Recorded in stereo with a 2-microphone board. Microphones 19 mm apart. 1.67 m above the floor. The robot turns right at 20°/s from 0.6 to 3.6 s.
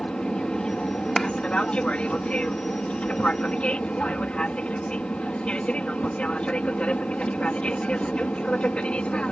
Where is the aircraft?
50° left; by 9.3 s 110° left.